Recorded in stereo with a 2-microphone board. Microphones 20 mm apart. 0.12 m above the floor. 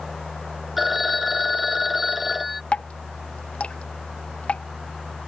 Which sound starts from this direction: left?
Dripping, at 2.7 s.